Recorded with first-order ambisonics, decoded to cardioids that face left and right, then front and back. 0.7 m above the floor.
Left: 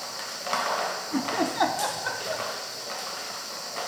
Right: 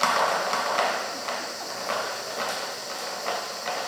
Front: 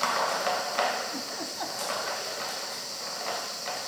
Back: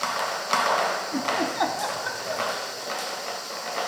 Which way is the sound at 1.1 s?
125° left.